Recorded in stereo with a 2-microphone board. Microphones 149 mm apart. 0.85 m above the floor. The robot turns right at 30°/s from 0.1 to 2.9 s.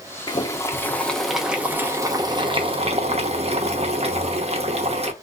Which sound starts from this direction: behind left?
Boiling, at 0.3 s.